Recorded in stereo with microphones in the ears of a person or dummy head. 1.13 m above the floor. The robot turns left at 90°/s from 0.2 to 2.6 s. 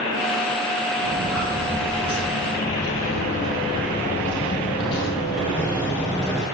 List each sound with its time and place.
1.0 s footsteps: 70° right (ahead or behind), 3.5 m; by 6.5 s 5° left (ahead or behind), 1.4 m